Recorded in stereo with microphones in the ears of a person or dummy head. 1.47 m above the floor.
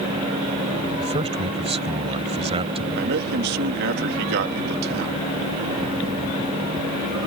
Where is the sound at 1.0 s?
30° right (ahead or behind).